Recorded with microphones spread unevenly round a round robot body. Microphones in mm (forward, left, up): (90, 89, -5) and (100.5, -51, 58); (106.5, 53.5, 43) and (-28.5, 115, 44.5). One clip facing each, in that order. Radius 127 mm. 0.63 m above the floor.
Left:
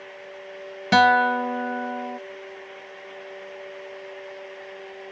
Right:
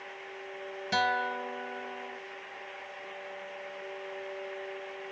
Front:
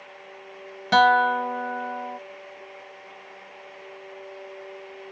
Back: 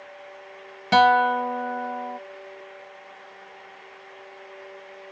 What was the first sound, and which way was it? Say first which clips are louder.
A guitar: left 13 dB, back 1 dB; 75° left.